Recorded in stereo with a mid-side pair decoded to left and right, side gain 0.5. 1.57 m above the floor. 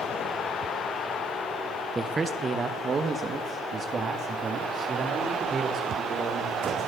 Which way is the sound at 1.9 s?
25° right.